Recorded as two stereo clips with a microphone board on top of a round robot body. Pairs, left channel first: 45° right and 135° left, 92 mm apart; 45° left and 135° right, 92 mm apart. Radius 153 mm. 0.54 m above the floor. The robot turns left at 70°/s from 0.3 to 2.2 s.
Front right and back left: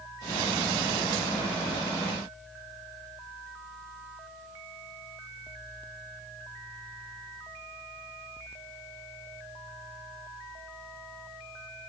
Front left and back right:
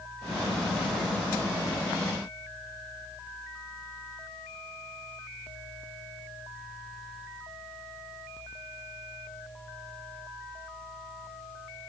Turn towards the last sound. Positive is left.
No sound to turn to.